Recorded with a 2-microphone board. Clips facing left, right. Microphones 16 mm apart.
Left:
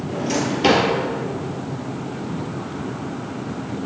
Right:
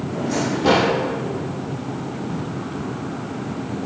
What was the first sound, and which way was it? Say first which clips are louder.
A drawer: left 1 dB; 60° left (ahead or behind).